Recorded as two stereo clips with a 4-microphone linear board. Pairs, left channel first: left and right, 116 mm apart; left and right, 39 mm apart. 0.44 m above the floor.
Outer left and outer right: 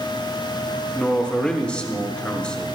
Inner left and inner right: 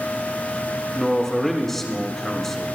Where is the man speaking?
10° left (ahead or behind), 1.5 m.